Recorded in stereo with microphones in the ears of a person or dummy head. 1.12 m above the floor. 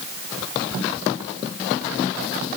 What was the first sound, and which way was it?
Only background noise.